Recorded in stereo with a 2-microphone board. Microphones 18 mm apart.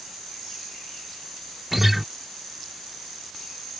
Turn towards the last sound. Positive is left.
turn(degrees=-5)  # may be behind; listen again after turning